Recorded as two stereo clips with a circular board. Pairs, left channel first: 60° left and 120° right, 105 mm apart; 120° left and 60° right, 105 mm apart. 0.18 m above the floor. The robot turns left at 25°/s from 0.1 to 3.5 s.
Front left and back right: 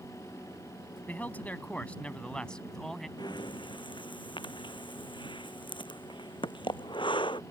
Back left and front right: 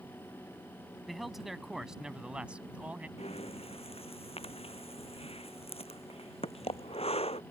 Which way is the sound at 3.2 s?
110° left.